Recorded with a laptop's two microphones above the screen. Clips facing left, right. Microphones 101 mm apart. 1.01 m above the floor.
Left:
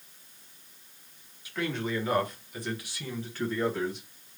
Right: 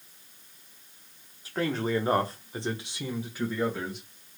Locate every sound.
1.4 s a man speaking: 35° right (ahead or behind), 0.9 m; by 4.0 s 5° right (ahead or behind), 1.5 m